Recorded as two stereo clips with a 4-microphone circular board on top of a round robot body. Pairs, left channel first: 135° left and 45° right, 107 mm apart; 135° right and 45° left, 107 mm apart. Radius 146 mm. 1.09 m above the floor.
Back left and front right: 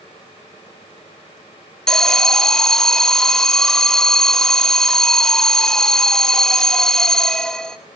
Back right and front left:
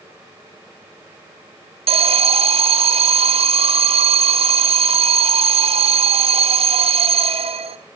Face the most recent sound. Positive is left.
turn(degrees=50)